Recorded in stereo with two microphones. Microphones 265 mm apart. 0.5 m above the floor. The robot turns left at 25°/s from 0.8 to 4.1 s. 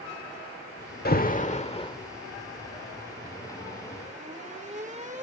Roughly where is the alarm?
Left.